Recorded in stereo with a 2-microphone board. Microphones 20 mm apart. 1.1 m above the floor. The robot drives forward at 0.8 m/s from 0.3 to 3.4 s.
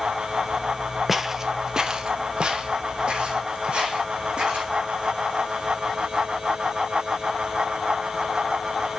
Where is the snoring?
I don't hear snoring.